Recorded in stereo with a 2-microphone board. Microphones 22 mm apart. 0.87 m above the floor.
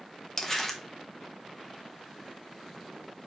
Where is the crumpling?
15° left (ahead or behind), 0.5 m.